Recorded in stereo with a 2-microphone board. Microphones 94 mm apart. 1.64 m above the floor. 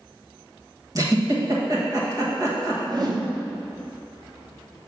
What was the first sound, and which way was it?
A giggle, 40° right (ahead or behind).